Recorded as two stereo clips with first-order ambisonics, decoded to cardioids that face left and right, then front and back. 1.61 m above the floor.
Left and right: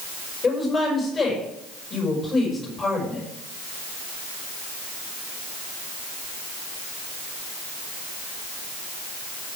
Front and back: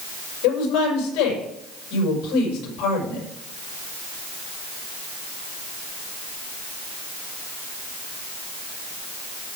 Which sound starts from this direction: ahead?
A woman speaking, at 0.4 s.